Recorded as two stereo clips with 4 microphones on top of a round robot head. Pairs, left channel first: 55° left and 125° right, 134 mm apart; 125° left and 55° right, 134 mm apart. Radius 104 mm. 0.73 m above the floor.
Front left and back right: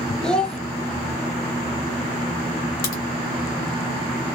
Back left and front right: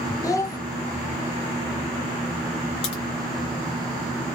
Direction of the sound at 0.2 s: 135° left.